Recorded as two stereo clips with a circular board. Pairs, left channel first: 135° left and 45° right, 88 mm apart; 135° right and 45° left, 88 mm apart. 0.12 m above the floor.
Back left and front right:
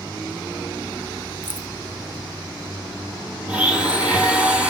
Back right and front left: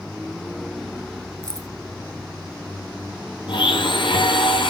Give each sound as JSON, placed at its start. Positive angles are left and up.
{"t": 1.4, "sound": "keys jangling", "azimuth_deg": 5, "distance_m": 1.6}
{"t": 3.5, "sound": "a blender", "azimuth_deg": -120, "distance_m": 3.5}